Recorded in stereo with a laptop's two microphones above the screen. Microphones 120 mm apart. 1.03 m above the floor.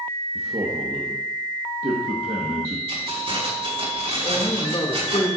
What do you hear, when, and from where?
0.3 s a man speaking: 55° right (ahead or behind), 1.3 m
2.9 s keys jangling: 60° right (ahead or behind), 5 m
4.2 s a man speaking: 50° left (ahead or behind), 2.5 m